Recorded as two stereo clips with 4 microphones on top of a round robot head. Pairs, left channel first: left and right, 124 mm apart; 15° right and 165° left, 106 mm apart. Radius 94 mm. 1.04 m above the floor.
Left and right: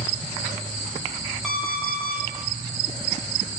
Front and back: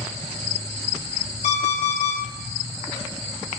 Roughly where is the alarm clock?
Ahead.